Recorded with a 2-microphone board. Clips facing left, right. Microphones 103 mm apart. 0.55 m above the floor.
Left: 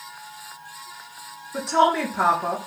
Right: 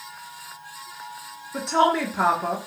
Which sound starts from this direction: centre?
A woman speaking, at 1.5 s.